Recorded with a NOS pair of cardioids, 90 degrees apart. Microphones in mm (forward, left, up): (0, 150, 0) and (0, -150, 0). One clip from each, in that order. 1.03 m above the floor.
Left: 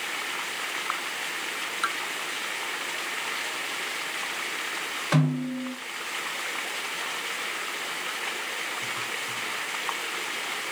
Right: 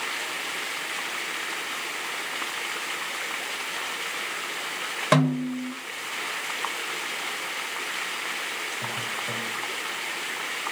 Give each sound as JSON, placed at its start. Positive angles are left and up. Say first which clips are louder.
{"t": 5.1, "sound": "a snare drum", "louder": "right 8 dB", "azimuth_deg": -50, "distance_m": 1.4}